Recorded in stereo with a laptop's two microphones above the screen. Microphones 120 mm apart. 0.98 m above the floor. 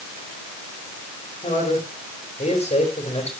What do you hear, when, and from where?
1.4 s a man speaking: 80° left, 5 m; by 3.3 s 60° left (ahead or behind), 4.5 m